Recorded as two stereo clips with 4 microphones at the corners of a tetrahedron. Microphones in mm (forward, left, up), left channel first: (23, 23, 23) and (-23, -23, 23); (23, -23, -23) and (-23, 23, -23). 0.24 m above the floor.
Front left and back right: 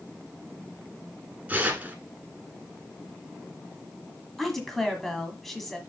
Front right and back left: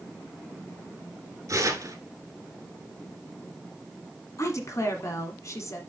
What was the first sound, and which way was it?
Tearing paper, 160° left.